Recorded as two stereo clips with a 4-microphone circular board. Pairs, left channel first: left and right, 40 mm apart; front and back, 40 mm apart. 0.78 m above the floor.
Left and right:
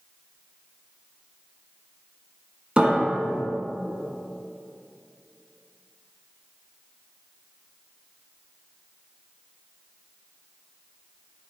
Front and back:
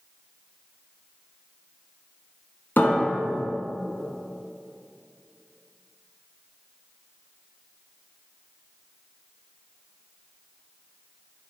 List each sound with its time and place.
2.8 s a piano: 30° right, 1.4 m